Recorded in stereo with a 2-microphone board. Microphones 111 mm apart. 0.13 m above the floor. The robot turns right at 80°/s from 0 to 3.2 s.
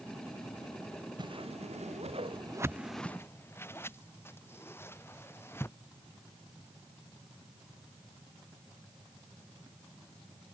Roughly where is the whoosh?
Right.